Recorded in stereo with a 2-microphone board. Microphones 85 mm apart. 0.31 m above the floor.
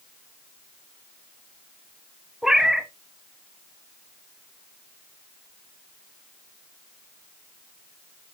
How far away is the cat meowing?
About 0.6 m.